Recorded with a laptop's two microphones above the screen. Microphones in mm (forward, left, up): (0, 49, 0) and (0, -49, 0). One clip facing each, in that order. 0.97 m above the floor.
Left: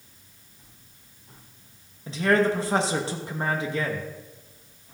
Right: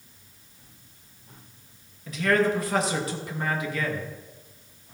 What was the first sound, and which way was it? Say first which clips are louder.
A man speaking: left 1 dB; 25° left (ahead or behind).